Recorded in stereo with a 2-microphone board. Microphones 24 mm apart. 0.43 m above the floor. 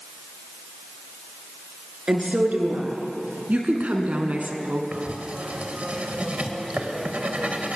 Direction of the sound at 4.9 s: 55° right (ahead or behind).